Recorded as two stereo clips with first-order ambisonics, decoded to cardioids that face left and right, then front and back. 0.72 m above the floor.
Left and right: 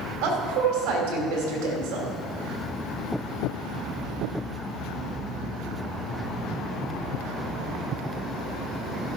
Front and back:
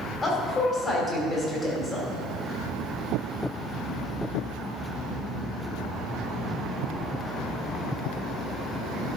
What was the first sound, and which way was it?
A woman speaking, 70° right.